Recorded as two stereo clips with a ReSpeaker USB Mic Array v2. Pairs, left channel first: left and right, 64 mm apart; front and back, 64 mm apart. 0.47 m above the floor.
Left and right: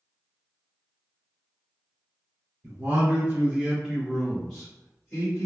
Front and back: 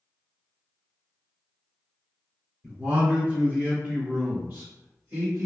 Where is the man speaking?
115° right, 1.5 m; by 5.5 s 150° left, 1.7 m.